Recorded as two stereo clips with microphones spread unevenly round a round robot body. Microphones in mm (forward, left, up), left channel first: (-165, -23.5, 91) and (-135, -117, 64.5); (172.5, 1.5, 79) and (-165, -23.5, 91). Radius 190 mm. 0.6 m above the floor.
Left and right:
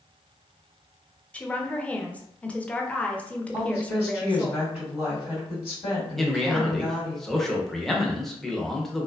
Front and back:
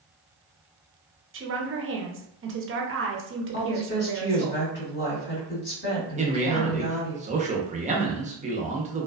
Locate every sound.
1.3 s a woman speaking: 155° right, 0.7 m
3.5 s a woman speaking: 60° left, 1.6 m
6.2 s a man speaking: 130° right, 0.7 m